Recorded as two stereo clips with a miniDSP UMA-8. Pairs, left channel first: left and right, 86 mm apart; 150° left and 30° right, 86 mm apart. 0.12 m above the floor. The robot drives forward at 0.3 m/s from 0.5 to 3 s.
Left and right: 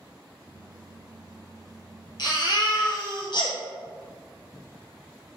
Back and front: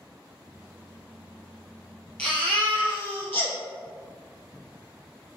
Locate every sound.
2.2 s a baby crying: 75° left, 1.2 m; by 3.5 s 85° left, 1.1 m